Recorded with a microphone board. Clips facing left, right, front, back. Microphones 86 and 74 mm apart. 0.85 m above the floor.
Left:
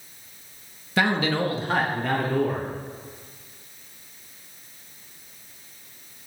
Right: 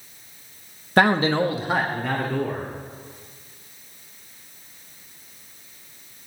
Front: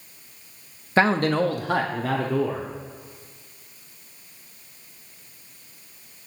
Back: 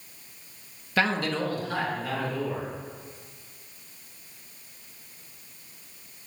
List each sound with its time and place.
1.0 s a man speaking: 55° right, 0.9 m; by 2.7 s 10° left, 2.0 m